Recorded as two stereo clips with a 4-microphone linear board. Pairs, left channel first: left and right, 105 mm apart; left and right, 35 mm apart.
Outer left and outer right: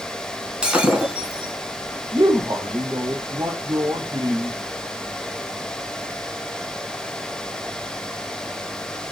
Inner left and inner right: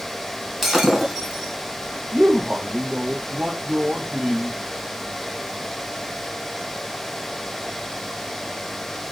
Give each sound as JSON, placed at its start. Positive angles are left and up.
{"t": 0.6, "sound": "breaking glass", "side_deg": -10, "distance_m": 4.5}
{"t": 2.1, "sound": "a man speaking", "side_deg": -35, "distance_m": 3.0}